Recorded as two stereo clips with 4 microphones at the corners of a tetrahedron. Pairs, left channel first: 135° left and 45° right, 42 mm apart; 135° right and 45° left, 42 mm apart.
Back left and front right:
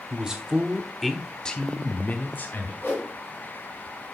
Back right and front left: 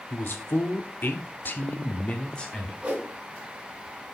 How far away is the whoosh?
About 3.5 m.